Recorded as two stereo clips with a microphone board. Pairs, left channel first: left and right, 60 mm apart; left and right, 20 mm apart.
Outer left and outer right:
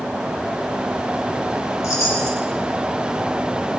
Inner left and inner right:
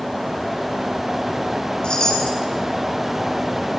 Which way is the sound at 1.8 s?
60° left (ahead or behind).